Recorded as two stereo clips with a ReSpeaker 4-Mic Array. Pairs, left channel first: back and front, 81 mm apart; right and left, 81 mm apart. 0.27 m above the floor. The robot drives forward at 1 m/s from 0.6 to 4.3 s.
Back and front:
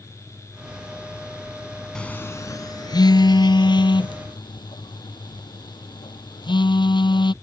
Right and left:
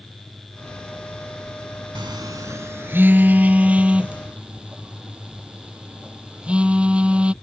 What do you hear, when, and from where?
1.9 s a phone buzzing: 100° left; by 7.3 s 165° left